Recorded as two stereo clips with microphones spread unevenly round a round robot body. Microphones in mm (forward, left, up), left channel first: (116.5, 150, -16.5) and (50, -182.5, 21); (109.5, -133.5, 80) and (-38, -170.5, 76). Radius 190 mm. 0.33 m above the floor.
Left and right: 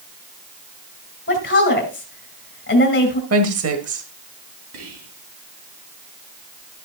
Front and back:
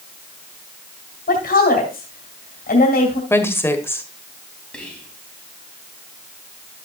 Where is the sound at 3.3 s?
60° right, 1.8 m.